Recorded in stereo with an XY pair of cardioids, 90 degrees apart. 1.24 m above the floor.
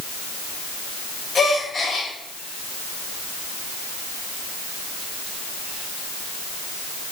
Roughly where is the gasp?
Ahead left.